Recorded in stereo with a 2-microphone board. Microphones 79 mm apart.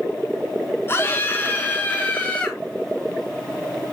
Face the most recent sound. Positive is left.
turn(degrees=20)  # may be behind; listen again after turning